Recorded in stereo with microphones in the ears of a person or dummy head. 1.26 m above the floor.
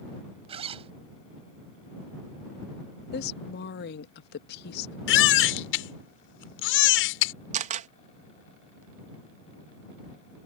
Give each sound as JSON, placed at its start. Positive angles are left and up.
{"t": 0.5, "sound": "a zipper", "side_deg": -35}
{"t": 3.1, "sound": "a woman speaking", "side_deg": 65}
{"t": 5.1, "sound": "a baby crying", "side_deg": 75}
{"t": 7.5, "sound": "a camera shutter", "side_deg": -40}